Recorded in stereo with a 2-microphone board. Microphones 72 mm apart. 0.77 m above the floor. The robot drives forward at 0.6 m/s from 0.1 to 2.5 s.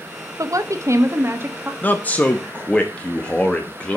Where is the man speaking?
25° left (ahead or behind), 0.6 m; by 4.0 s 15° left (ahead or behind), 0.8 m.